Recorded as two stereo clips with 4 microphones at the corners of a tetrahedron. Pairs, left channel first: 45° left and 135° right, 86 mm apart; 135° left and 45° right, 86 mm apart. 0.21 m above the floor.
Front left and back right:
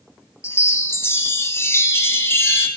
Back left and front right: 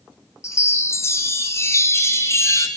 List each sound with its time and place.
0.4 s a chime: 95° left, 0.9 m